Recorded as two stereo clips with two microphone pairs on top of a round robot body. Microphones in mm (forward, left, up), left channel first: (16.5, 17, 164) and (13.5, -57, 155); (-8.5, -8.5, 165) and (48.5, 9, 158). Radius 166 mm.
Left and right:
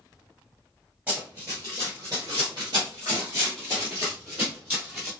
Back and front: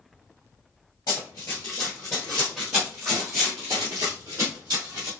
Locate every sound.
1.1 s running footsteps: 170° right, 1.4 m; by 5.1 s 15° right, 1.7 m